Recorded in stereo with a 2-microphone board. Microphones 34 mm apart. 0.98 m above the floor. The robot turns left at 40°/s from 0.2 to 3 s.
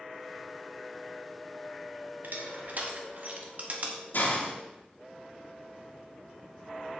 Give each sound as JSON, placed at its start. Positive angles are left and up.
{"t": 2.2, "sound": "crushing", "side_deg": -75, "distance_m": 1.4}
{"t": 4.1, "sound": "a hiss", "side_deg": 65, "distance_m": 1.7}